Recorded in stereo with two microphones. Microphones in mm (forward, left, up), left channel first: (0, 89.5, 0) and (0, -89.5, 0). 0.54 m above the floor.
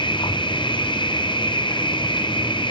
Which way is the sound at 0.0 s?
25° left (ahead or behind).